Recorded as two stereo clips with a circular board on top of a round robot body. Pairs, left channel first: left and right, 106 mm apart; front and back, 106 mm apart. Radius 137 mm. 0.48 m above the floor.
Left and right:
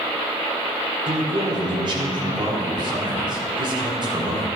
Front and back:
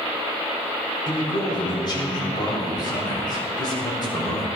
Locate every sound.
1.1 s a man speaking: 45° right, 3.5 m